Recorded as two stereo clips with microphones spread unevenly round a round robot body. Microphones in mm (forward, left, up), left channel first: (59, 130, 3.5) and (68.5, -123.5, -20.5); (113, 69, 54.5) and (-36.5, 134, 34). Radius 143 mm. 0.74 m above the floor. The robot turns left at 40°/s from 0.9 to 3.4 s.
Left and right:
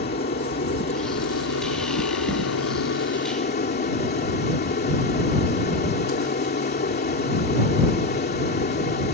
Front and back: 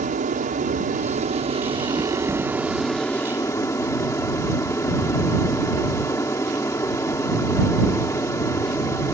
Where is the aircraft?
145° left; by 9.1 s 45° left.